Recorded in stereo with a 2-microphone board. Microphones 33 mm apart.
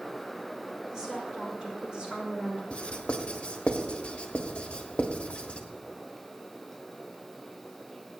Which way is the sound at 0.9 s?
15° right (ahead or behind).